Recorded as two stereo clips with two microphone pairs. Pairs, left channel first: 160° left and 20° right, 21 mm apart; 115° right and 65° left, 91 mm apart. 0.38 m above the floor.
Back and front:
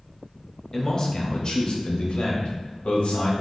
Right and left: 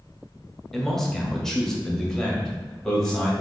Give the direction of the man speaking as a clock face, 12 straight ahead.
7 o'clock.